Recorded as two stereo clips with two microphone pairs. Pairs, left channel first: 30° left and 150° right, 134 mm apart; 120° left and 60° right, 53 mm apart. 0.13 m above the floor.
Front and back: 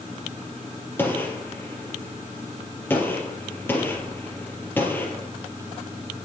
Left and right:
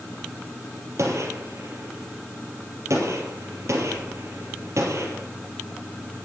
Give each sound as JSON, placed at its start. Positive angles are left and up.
{"t": 1.0, "sound": "a gunshot", "azimuth_deg": -45, "distance_m": 3.5}